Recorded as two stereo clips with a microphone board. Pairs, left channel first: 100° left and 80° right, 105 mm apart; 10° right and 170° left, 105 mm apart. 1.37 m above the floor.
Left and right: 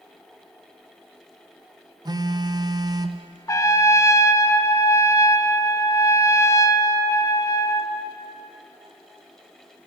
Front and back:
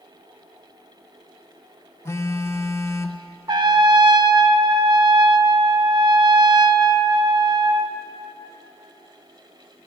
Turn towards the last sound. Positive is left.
turn(degrees=150)